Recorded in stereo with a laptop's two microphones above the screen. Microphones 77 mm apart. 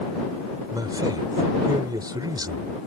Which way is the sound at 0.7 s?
60° right (ahead or behind).